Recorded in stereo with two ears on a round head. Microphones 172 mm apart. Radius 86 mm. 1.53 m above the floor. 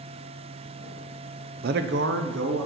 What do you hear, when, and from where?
1.6 s a man speaking: 50° right (ahead or behind), 0.5 m; by 2.7 s 70° right (ahead or behind), 1.4 m